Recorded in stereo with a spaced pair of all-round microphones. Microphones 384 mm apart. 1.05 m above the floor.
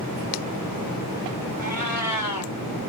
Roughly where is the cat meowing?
Left.